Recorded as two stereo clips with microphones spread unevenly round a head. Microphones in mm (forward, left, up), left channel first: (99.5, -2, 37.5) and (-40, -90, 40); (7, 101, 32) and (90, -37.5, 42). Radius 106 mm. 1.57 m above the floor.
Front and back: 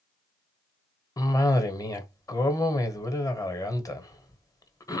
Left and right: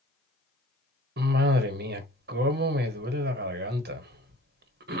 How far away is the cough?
About 1.3 m.